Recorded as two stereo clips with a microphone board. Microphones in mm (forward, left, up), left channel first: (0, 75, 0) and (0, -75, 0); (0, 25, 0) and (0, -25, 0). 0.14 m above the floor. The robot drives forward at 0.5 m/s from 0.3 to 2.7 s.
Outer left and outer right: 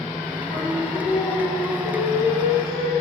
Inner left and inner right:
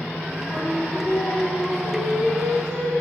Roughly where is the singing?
Left.